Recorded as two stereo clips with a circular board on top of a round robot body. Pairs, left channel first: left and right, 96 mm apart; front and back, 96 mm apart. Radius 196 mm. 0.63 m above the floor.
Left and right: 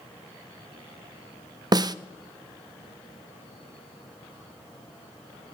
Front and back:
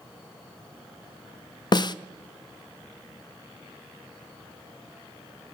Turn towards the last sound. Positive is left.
turn(degrees=-45)